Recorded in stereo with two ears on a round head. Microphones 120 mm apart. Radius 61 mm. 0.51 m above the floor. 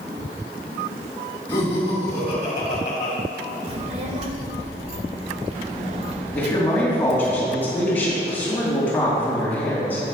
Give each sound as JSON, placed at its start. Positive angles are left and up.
{"t": 1.5, "sound": "laughter", "side_deg": 20, "distance_m": 3.0}
{"t": 3.7, "sound": "a child speaking", "side_deg": -50, "distance_m": 1.4}
{"t": 6.3, "sound": "a man speaking", "side_deg": 15, "distance_m": 3.0}